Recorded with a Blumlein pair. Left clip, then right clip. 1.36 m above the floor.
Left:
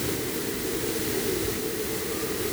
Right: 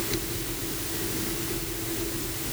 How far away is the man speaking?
No man speaking in this recording.